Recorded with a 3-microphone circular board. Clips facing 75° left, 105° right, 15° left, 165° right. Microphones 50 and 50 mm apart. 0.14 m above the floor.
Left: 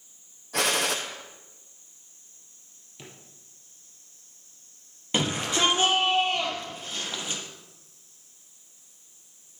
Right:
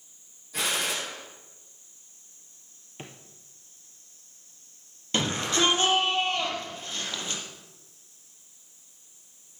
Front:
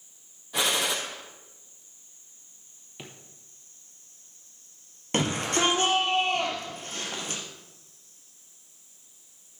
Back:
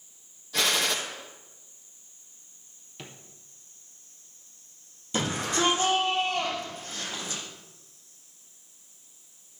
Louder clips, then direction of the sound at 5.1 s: Even, front 2 dB; 5° left.